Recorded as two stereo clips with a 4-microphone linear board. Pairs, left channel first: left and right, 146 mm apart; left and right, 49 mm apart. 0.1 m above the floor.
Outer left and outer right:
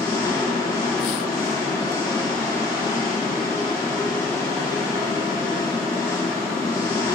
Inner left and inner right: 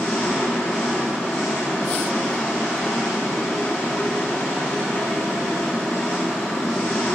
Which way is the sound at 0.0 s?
20° left (ahead or behind).